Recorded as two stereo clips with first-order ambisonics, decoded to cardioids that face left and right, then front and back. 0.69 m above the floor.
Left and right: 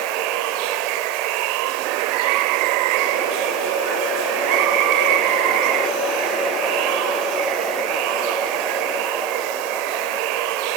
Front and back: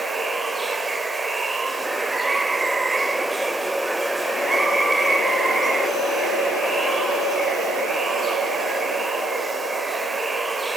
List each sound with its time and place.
0.0 s running water: 100° right, 1.0 m